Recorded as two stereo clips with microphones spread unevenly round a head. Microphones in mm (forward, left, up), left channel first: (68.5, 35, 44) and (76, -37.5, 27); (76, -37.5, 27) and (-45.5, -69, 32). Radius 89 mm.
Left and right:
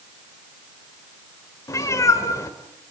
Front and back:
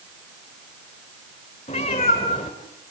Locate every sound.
1.7 s a cat meowing: 70° left, 2 m